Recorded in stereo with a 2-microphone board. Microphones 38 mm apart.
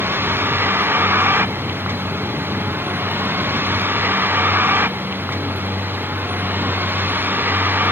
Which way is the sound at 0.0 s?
85° right.